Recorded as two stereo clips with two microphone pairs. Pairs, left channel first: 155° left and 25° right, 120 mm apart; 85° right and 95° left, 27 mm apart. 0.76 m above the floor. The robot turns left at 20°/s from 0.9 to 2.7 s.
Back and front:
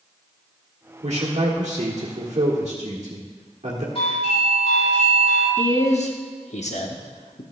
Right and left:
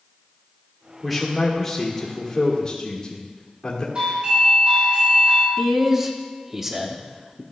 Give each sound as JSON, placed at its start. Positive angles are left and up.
{"t": 1.0, "sound": "a man speaking", "azimuth_deg": -5, "distance_m": 1.5}
{"t": 4.0, "sound": "a doorbell", "azimuth_deg": 130, "distance_m": 3.0}
{"t": 5.6, "sound": "a man speaking", "azimuth_deg": 160, "distance_m": 1.2}